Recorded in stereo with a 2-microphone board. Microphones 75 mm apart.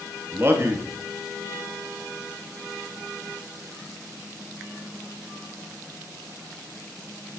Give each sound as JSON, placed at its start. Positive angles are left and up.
{"t": 0.3, "sound": "a man speaking", "side_deg": -35, "distance_m": 1.2}